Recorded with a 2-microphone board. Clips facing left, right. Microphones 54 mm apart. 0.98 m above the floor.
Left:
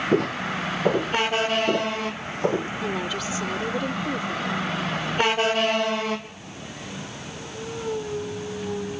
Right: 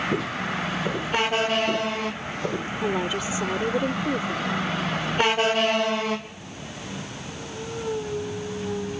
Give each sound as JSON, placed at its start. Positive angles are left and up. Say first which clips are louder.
{"t": 0.1, "sound": "footsteps", "louder": "left 4 dB", "side_deg": 55}
{"t": 2.8, "sound": "a woman speaking", "louder": "right 2 dB", "side_deg": -20}